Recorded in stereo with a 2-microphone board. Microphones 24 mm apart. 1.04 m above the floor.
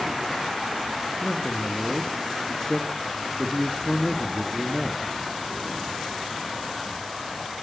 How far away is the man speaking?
About 1.7 m.